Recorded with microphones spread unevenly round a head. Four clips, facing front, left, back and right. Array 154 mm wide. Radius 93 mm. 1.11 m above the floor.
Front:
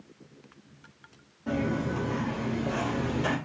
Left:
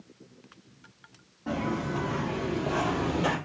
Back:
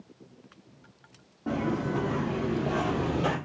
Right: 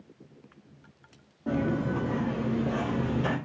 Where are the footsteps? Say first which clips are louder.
Right 2 dB, even; 155° right, 1.7 m; by 3.4 s 105° left, 1.2 m.